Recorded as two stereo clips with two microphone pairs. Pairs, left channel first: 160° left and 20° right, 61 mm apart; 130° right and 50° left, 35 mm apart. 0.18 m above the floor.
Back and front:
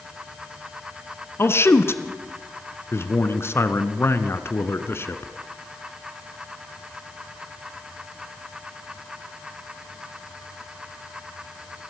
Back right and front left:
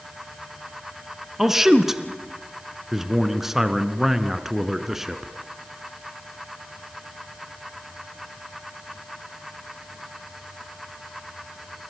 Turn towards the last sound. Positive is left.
turn(degrees=130)